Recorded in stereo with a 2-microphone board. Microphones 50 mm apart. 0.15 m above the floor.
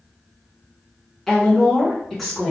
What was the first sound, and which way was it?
A woman speaking, 5° left (ahead or behind).